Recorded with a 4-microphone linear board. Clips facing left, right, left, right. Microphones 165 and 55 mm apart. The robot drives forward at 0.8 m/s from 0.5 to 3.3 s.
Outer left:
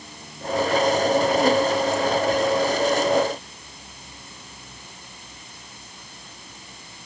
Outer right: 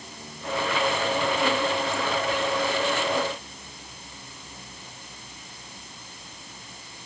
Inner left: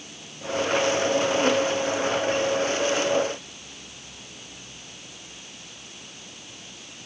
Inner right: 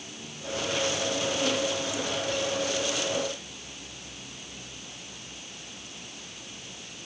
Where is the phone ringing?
No phone ringing in this recording.